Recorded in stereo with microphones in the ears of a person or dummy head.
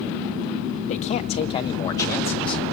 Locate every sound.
0.9 s a man speaking: 35° left (ahead or behind), 2.0 m; by 2.7 s centre (ahead or behind), 1.5 m